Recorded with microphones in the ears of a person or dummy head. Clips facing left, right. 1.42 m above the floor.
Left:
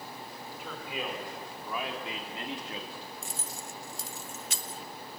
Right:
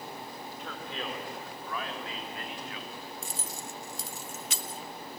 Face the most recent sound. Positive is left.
turn(degrees=-60)  # may be behind; listen again after turning